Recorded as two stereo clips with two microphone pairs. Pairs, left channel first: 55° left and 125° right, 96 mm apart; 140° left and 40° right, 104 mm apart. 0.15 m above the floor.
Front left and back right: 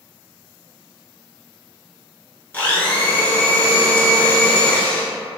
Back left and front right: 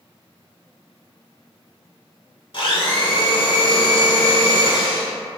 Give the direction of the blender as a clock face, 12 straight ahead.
8 o'clock.